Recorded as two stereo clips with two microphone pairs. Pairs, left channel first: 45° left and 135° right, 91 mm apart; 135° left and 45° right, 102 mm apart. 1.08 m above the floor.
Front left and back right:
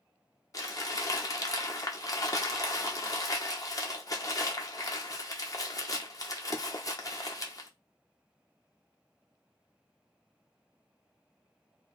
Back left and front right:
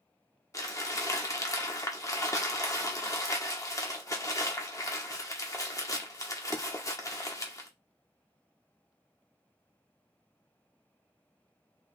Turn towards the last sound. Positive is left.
turn(degrees=80)